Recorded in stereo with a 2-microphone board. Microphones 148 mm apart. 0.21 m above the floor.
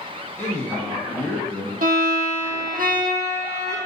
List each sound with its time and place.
0.4 s a man speaking: 15° left (ahead or behind), 1.5 m
1.8 s a violin: 75° right (ahead or behind), 1.1 m